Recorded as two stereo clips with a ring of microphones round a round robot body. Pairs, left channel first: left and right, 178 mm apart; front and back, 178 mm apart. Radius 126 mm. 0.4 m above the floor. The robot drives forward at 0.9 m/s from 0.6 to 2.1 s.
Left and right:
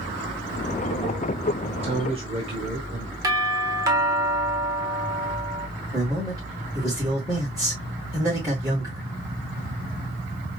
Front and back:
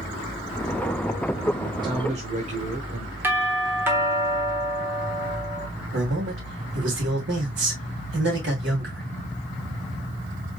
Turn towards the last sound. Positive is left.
turn(degrees=-165)